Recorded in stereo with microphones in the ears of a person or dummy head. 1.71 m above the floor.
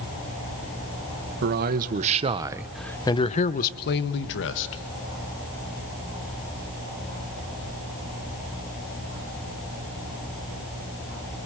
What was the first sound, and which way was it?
A man speaking, 55° right (ahead or behind).